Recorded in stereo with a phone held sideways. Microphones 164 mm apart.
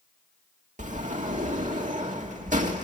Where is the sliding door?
50° right (ahead or behind), 2 m.